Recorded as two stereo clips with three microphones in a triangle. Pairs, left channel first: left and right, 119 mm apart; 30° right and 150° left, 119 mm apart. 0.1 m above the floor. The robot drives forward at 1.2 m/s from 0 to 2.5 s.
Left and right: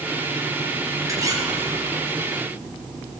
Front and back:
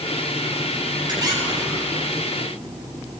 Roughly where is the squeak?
Behind right.